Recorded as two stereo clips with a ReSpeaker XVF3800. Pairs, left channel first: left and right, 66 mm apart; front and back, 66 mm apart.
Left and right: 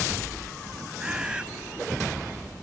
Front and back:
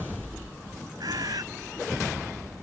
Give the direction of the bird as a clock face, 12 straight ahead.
6 o'clock.